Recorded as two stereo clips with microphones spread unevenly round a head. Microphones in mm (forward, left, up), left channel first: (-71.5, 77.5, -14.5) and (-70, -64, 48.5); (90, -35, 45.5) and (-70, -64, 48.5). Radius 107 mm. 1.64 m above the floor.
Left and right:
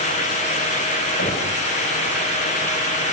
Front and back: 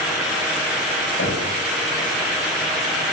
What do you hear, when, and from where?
1.2 s knocking: 60° left, 8.5 m